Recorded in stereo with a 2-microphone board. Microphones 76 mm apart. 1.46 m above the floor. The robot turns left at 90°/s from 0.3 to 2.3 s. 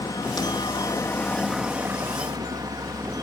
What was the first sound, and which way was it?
A helicopter, 115° left.